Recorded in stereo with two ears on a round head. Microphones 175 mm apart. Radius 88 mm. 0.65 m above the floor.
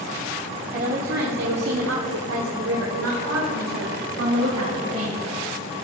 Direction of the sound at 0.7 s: 40° right (ahead or behind).